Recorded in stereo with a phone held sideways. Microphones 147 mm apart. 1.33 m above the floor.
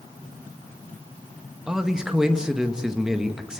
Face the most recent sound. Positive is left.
turn(degrees=-5)  # may be behind; listen again after turning